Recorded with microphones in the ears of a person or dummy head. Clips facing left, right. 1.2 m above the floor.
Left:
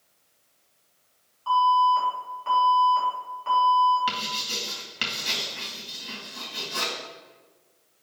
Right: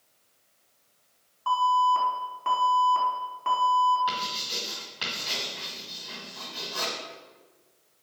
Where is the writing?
45° left (ahead or behind), 2 m.